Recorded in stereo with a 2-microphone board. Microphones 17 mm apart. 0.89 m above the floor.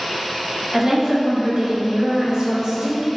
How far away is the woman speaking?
About 1.1 m.